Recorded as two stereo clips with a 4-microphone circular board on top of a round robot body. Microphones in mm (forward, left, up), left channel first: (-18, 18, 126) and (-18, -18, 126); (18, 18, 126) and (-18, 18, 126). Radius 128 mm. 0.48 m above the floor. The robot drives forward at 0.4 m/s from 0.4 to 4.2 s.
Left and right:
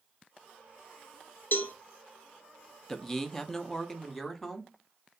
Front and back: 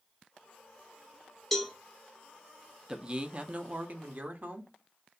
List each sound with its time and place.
1.5 s a cowbell: 90° left, 1.0 m; by 1.7 s 95° left, 1.1 m
2.9 s a man speaking: 155° left, 0.8 m; by 4.7 s 170° left, 1.0 m